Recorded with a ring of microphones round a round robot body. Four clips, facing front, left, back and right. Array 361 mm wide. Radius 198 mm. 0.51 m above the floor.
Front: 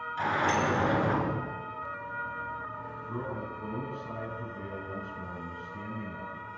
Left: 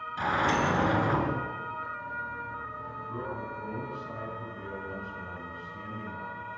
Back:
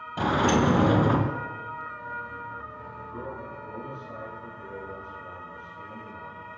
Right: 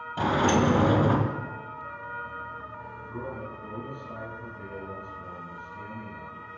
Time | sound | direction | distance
0.2 | a sliding door | 150° right | 2.5 m
3.1 | a man speaking | 10° left | 8.5 m